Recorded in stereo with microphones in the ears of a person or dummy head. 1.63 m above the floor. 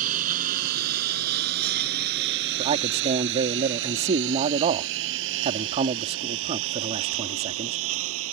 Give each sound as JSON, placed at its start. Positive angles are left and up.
{"t": 0.0, "sound": "a lawn mower", "side_deg": -50}
{"t": 2.6, "sound": "a man speaking", "side_deg": -35}